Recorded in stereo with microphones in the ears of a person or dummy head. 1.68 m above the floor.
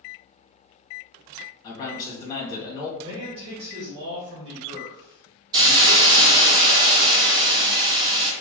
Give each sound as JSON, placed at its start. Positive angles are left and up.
{"t": 1.6, "sound": "a man speaking", "side_deg": 25, "distance_m": 1.4}
{"t": 3.0, "sound": "a man speaking", "side_deg": -25, "distance_m": 1.3}
{"t": 5.5, "sound": "a hiss", "side_deg": -25, "distance_m": 0.7}